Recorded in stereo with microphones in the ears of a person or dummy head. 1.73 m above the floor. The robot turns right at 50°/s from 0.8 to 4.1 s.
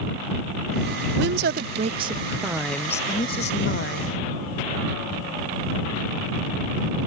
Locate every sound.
1.2 s a woman speaking: 75° right; by 4.2 s 75° left